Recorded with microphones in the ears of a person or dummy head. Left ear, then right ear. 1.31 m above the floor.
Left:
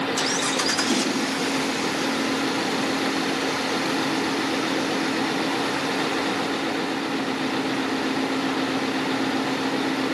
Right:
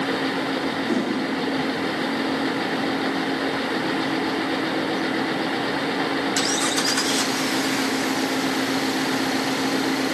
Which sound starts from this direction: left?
A whoosh, at 0.9 s.